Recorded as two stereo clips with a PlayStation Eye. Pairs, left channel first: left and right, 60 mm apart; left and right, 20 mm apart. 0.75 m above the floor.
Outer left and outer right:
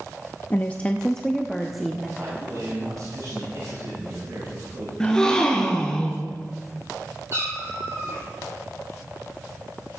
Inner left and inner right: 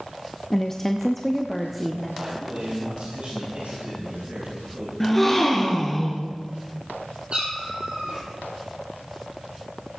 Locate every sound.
0.5 s a woman speaking: 30° left (ahead or behind), 0.5 m; by 2.1 s 5° right (ahead or behind), 1.0 m
2.2 s a man speaking: 80° right, 5.5 m
5.0 s a gasp: 10° left (ahead or behind), 1.8 m
7.3 s a cat meowing: 50° right (ahead or behind), 5.5 m